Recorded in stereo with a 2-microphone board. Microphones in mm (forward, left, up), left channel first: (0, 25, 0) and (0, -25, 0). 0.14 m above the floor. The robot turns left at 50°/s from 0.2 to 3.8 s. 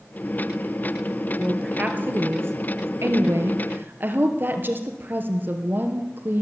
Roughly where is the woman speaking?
Ahead.